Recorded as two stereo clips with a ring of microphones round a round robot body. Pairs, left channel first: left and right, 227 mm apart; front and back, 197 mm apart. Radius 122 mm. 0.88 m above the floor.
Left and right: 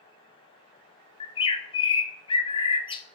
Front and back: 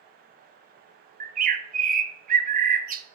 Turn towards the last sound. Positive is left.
turn(degrees=150)